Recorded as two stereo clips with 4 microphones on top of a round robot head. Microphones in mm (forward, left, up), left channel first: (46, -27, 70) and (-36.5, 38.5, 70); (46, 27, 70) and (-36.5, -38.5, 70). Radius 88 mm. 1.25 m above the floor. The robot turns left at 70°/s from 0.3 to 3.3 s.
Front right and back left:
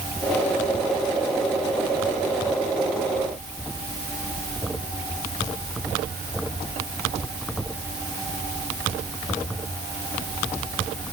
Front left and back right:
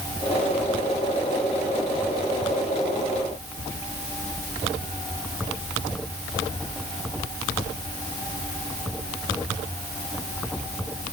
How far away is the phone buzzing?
No phone buzzing in this recording.